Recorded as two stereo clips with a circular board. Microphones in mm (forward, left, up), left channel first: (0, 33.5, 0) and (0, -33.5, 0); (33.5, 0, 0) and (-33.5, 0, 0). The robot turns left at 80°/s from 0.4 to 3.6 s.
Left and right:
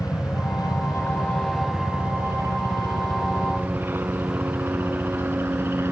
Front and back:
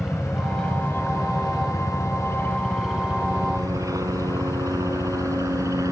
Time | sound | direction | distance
0.0 | a helicopter | 95° left | ?